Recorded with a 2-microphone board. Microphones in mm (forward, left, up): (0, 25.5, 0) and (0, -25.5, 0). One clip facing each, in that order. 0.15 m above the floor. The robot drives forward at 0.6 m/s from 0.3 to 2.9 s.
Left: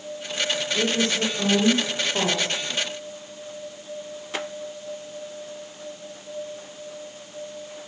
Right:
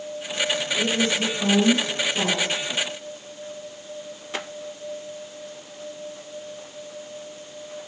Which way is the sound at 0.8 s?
50° left (ahead or behind).